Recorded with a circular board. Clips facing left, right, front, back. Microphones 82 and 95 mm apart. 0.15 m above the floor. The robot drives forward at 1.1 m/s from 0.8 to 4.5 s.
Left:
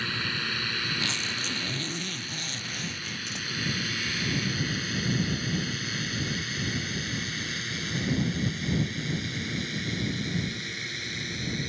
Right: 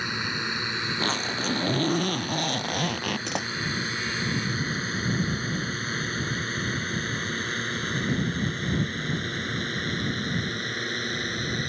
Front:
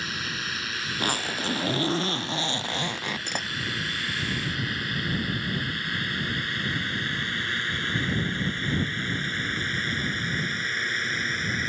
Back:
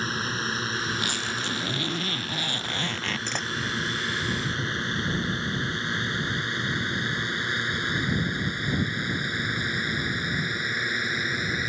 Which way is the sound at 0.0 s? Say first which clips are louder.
Right 2 dB, back 4 dB; 150° right.